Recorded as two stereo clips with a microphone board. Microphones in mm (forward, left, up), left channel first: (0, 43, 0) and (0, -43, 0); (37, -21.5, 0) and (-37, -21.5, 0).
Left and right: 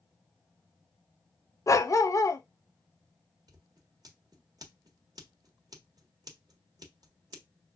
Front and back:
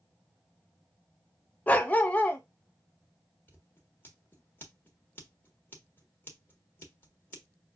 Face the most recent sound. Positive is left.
turn(degrees=-60)